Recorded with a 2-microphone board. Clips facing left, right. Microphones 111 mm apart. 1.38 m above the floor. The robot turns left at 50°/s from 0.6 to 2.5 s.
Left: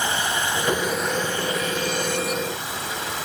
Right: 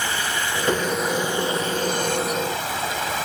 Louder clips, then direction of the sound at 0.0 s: Left 1 dB; 20° left.